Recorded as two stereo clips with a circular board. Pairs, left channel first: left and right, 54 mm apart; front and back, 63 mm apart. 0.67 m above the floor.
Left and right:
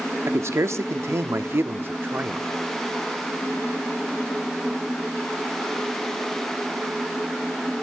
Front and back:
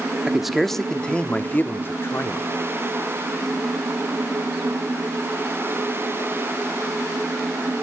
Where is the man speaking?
100° right, 1.1 m; by 2.5 s 35° right, 1.5 m.